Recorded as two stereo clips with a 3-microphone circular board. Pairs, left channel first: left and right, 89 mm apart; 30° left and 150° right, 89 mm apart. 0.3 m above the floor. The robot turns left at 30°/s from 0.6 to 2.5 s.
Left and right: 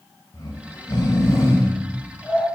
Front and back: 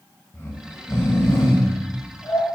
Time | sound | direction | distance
0.3 | snoring | 80° left | 0.6 m